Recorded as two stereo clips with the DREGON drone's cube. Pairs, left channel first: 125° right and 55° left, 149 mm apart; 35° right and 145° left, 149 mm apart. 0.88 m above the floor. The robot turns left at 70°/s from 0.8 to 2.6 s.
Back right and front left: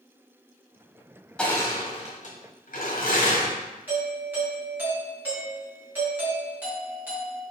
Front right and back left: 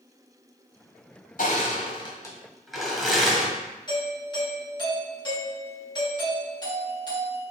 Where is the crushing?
40° right, 1.4 m; by 3.5 s 125° right, 1.4 m.